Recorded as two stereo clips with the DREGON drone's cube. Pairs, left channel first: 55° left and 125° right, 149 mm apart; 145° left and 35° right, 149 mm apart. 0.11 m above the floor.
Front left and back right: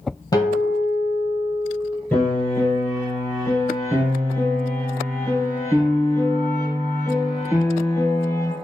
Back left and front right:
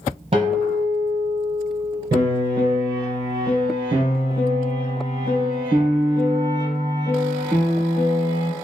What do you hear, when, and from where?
0.3 s a guitar: straight ahead, 0.8 m
2.1 s a piano: 10° right, 1.8 m